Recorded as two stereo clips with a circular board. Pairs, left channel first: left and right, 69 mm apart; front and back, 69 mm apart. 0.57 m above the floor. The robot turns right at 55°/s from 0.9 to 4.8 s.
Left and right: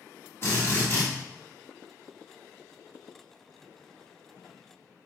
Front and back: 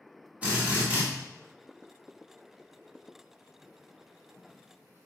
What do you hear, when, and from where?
0.4 s a drill: 120° left, 1.7 m; by 1.1 s 130° left, 1.7 m